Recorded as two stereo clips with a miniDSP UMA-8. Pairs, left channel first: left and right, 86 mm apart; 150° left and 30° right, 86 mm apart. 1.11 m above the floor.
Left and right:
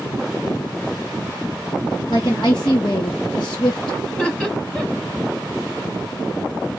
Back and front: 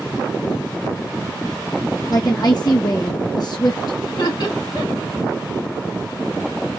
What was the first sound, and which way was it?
A woman speaking, 115° left.